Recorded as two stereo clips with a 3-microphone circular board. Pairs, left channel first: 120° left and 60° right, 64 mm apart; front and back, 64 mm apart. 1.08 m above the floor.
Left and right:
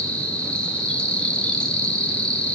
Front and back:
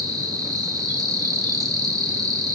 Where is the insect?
165° right, 3 m.